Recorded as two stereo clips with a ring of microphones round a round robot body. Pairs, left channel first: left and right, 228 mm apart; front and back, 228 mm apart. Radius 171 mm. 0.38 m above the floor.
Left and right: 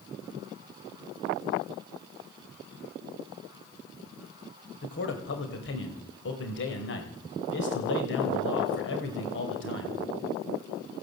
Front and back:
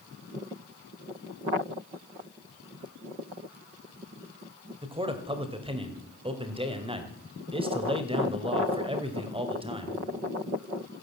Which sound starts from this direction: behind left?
A man speaking, at 4.8 s.